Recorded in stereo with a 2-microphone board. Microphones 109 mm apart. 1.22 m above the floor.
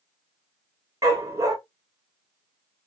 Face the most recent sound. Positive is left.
turn(degrees=-30)  # may be behind; listen again after turning